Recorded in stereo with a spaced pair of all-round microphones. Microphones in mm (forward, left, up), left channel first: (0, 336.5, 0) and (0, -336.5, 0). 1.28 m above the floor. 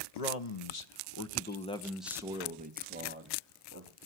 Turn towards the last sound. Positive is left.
turn(degrees=-20)  # may be behind; listen again after turning